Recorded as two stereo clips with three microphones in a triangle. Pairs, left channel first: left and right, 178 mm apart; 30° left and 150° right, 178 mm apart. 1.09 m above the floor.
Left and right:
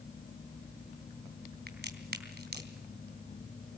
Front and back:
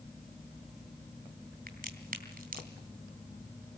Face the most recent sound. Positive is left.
turn(degrees=-115)